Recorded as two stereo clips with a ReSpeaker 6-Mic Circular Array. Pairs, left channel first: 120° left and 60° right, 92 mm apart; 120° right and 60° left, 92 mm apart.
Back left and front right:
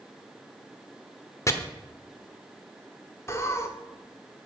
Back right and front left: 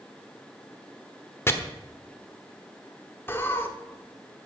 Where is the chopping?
175° left, 1.1 m.